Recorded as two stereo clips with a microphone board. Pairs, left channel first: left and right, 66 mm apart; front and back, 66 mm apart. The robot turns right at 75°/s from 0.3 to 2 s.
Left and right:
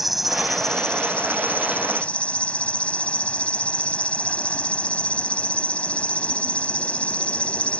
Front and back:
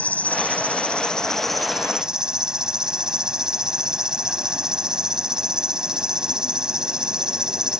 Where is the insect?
5° right; by 7.8 s 120° left.